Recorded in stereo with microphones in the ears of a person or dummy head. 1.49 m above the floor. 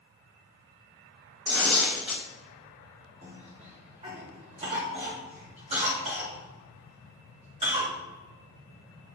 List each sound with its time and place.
1.4 s tearing paper: 10° right (ahead or behind), 1.7 m
3.2 s a cough: 35° right (ahead or behind), 3 m